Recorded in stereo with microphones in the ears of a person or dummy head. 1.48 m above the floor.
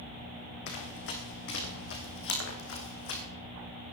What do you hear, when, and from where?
0.7 s running footsteps: 60° left (ahead or behind), 4.5 m; by 3.2 s 75° left (ahead or behind), 5.5 m